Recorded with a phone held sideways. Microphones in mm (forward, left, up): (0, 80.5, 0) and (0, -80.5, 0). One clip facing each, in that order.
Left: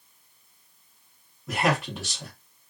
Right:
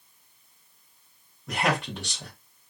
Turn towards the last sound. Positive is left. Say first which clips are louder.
# left 2 dB
turn(degrees=0)  # may be behind; listen again after turning